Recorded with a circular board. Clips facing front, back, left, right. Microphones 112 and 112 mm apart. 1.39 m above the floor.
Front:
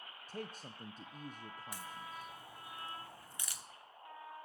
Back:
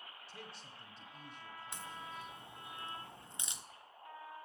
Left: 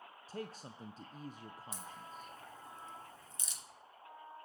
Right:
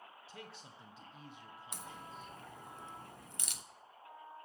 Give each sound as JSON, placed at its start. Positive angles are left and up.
{"t": 0.3, "sound": "a man speaking", "azimuth_deg": 45, "distance_m": 0.7}
{"t": 1.7, "sound": "a crack", "azimuth_deg": -110, "distance_m": 0.8}